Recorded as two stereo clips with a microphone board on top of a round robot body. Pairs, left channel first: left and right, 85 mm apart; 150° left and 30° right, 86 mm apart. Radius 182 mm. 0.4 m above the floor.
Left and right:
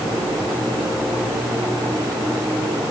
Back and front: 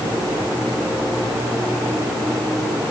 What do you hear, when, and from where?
Only background noise.